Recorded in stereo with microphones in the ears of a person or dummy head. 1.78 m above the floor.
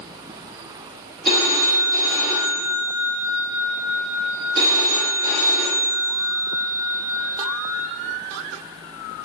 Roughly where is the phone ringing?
Right.